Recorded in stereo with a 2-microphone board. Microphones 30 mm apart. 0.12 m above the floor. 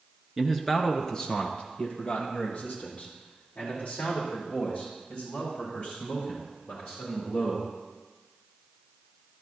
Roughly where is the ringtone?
No ringtone in this recording.